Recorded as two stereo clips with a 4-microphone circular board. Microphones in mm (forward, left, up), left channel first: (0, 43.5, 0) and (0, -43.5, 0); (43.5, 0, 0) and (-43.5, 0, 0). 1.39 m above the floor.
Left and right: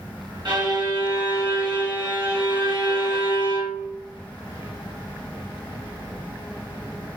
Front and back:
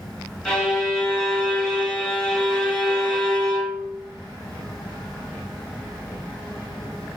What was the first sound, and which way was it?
A violin, 75° right.